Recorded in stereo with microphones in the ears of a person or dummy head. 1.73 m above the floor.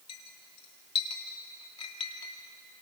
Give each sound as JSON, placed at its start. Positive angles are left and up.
{"t": 0.1, "sound": "a clink", "side_deg": 30, "distance_m": 2.5}